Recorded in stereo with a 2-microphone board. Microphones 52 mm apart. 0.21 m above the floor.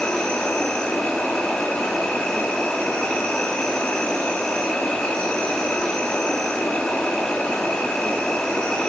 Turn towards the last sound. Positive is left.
turn(degrees=15)  # may be behind; listen again after turning